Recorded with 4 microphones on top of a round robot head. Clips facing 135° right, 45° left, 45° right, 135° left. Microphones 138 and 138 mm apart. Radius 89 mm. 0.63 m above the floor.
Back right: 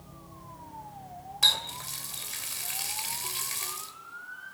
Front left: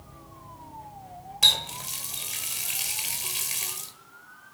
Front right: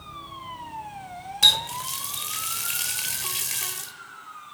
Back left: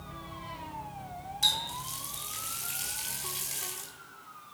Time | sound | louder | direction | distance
1.4 | a running tap | front left 3 dB, front right 6 dB | 30° right | 1.9 m